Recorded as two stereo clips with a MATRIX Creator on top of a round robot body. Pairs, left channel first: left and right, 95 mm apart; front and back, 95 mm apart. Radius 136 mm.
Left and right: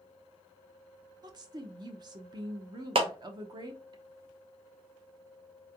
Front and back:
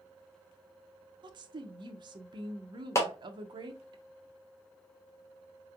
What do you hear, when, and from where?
1.2 s a woman speaking: 135° right, 0.5 m
3.0 s a clap: 65° right, 0.7 m